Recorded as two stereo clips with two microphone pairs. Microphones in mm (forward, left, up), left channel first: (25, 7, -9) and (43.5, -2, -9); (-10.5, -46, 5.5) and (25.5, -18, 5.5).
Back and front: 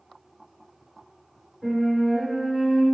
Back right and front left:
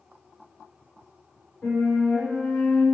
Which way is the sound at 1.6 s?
140° right.